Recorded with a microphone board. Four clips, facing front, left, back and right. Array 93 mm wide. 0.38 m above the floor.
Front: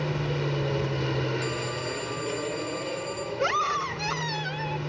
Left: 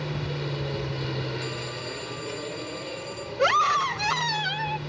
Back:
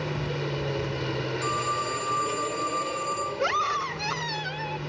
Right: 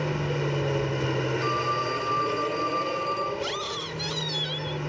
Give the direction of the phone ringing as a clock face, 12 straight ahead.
4 o'clock.